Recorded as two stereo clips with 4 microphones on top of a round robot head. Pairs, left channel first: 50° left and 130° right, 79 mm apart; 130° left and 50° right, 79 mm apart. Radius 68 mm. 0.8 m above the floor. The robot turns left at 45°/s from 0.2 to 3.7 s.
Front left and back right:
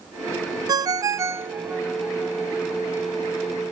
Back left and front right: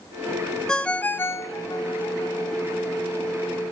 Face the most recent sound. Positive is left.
turn(degrees=75)